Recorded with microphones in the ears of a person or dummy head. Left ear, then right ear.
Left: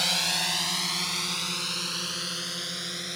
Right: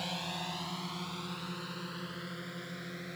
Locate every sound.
0.0 s a drone: 65° left (ahead or behind); by 3.2 s 85° left